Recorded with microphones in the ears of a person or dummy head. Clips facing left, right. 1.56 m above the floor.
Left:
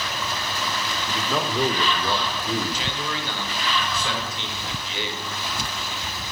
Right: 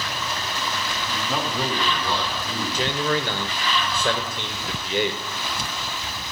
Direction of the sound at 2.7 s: 45° right (ahead or behind).